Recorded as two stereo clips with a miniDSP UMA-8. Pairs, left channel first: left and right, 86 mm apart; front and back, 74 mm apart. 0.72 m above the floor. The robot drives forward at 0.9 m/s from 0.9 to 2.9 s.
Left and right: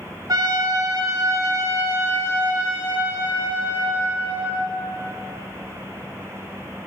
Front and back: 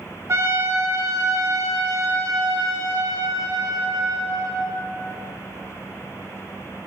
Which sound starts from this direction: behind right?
A trumpet, at 0.3 s.